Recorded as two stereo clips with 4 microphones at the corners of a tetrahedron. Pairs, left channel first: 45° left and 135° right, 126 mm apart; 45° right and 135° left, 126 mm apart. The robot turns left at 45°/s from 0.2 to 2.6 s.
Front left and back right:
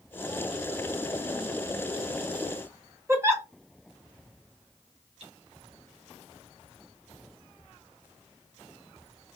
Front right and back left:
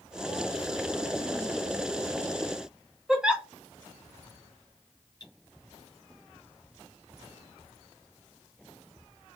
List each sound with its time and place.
3.1 s a giggle: 155° right, 0.9 m
5.2 s cutlery clinking: 100° right, 2.5 m